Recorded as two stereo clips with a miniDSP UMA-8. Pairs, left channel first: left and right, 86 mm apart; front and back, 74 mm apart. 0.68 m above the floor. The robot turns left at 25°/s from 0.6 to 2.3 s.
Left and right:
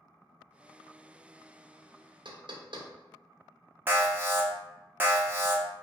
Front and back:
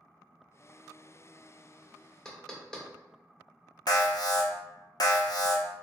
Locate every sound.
2.2 s knocking: 80° right, 0.5 m
3.9 s an alarm: 25° right, 0.6 m